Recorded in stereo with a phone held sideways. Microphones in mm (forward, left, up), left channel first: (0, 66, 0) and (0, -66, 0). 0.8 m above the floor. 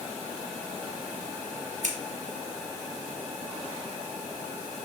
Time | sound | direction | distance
1.8 | scissors | 70° right (ahead or behind) | 1.7 m